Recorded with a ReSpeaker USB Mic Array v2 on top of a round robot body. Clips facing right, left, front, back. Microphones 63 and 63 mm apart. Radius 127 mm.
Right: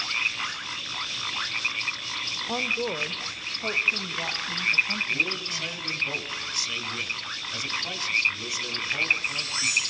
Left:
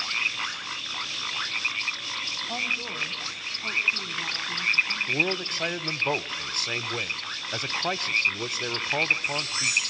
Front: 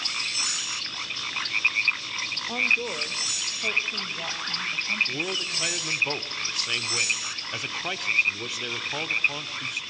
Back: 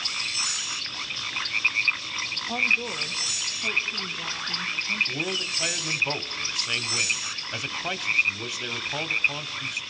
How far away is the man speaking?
About 1.1 m.